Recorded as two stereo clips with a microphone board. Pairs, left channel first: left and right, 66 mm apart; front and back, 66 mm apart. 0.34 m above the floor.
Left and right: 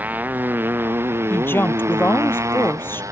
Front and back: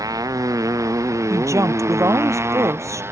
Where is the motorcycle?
155° right; by 3.1 s 130° right.